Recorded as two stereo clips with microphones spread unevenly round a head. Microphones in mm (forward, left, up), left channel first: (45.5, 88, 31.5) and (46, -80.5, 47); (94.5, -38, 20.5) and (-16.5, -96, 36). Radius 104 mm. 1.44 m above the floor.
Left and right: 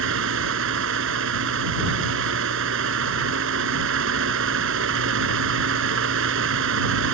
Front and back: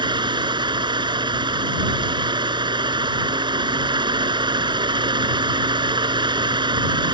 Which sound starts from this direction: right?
A fan, at 0.0 s.